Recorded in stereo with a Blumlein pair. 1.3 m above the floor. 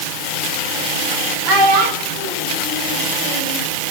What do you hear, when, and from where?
1.4 s a child speaking: 45° right, 4 m; by 3.6 s 60° right, 3.5 m